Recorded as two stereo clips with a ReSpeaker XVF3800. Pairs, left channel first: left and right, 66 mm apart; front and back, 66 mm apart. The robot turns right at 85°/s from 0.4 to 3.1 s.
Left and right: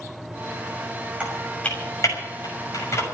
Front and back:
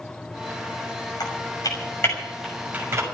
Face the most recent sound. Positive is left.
turn(degrees=145)